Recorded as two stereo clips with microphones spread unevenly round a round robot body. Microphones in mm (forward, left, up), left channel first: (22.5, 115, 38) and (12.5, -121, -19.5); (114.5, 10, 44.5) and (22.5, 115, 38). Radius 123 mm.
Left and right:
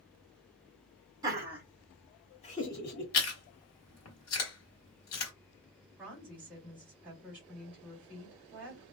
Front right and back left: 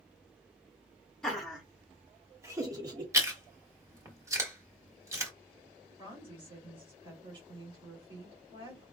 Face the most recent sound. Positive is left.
turn(degrees=-170)